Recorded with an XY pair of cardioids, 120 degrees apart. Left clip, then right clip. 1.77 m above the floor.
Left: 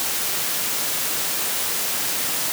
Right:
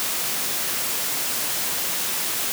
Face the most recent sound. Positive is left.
No sound to turn to.